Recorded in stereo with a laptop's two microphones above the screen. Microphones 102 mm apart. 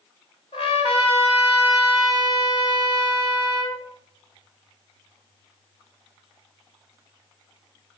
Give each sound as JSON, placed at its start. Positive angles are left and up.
{"t": 0.5, "sound": "a trumpet", "side_deg": 65, "distance_m": 2.5}